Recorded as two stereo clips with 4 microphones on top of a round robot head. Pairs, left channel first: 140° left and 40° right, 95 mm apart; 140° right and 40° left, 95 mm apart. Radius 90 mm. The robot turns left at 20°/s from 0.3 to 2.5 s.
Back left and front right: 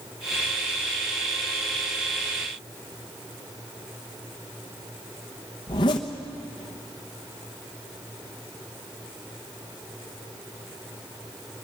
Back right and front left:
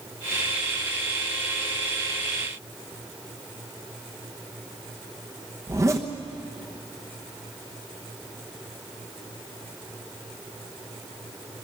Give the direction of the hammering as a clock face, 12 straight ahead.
No hammering in this recording.